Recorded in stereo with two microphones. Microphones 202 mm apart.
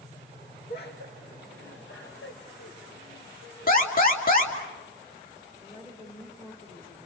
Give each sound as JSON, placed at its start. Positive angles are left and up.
{"t": 0.7, "sound": "laughter", "side_deg": 50, "distance_m": 1.2}
{"t": 3.7, "sound": "an alarm", "side_deg": 45, "distance_m": 3.0}
{"t": 5.6, "sound": "a woman speaking", "side_deg": 30, "distance_m": 8.0}